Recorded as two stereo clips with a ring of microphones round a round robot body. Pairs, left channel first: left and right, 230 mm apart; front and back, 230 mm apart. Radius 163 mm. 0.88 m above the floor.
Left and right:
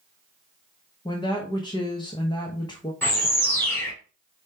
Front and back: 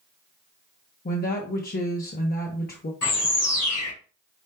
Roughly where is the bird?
Ahead.